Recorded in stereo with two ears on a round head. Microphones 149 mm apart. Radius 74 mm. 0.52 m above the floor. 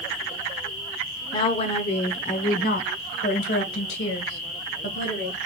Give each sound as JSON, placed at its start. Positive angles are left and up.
{"t": 1.3, "sound": "a woman speaking", "side_deg": 30, "distance_m": 1.1}